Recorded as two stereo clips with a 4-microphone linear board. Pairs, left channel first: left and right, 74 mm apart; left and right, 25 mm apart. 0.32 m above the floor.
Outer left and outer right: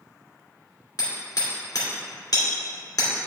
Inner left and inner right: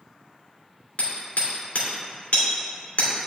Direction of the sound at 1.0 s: 65° left (ahead or behind).